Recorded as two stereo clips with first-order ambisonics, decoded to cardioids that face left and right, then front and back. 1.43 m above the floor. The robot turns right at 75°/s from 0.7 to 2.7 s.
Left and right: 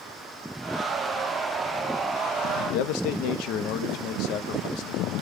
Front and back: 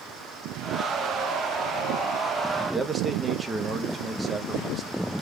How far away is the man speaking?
About 0.7 m.